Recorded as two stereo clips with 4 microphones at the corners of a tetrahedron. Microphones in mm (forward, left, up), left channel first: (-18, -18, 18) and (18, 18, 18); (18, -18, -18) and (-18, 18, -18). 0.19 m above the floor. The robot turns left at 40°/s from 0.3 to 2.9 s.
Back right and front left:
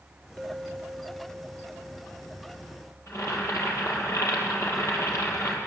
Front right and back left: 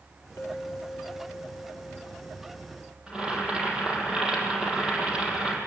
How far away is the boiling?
About 6.5 m.